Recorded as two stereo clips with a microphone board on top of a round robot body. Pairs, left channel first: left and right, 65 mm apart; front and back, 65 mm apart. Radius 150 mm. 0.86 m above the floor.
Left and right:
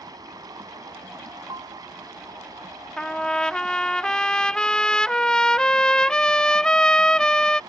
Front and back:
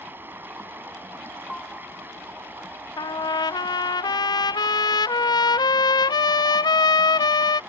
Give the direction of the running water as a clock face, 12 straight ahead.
4 o'clock.